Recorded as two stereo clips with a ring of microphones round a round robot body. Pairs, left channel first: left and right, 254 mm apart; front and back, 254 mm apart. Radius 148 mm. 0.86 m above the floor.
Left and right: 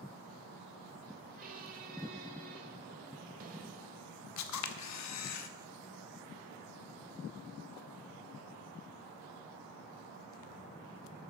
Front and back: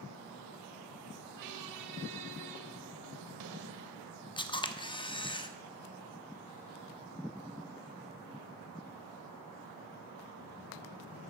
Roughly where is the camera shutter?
Left.